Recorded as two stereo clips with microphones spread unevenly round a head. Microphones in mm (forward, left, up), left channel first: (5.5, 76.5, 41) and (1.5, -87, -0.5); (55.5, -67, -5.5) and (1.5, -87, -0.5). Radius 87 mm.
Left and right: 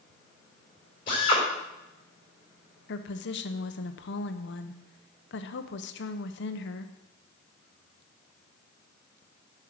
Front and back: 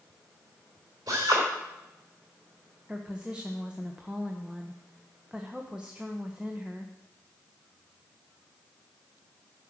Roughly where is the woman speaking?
Behind left.